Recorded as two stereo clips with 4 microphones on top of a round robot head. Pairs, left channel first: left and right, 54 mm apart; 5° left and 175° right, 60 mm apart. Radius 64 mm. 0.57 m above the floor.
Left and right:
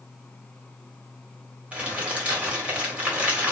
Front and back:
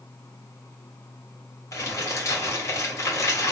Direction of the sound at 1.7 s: 25° right.